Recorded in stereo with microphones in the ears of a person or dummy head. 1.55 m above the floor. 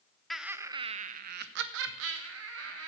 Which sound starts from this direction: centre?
Laughter, at 0.3 s.